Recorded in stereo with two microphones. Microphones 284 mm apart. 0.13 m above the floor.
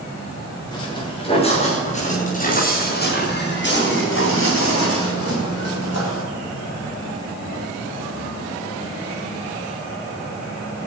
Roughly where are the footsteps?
Centre.